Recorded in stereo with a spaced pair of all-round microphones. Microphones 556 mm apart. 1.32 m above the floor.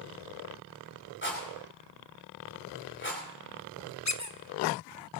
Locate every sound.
1.2 s a rattle: 20° left (ahead or behind), 9.5 m
4.0 s a squeak: 30° left (ahead or behind), 0.9 m